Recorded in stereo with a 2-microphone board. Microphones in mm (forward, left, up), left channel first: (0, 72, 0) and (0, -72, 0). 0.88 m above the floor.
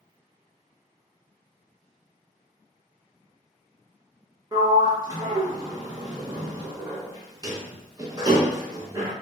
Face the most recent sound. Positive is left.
turn(degrees=-25)  # may be behind; listen again after turning